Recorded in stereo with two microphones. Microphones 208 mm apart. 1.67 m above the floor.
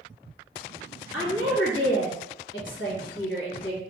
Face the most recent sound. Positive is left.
turn(degrees=65)  # may be behind; listen again after turning